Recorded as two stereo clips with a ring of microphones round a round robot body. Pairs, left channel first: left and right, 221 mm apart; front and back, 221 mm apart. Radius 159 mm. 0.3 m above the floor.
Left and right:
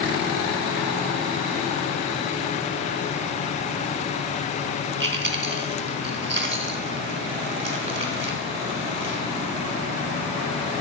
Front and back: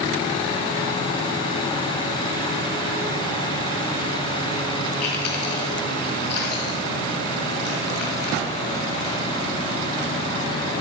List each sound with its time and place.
5.0 s chewing: 55° right, 1.7 m